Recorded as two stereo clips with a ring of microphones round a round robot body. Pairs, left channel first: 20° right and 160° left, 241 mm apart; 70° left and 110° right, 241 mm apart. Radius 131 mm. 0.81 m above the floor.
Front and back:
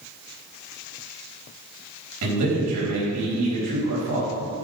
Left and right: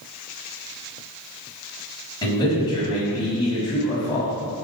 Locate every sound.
2.2 s a man speaking: 140° left, 4 m